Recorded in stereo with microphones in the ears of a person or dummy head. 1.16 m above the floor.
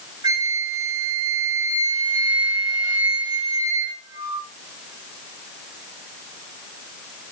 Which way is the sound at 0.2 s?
20° right (ahead or behind).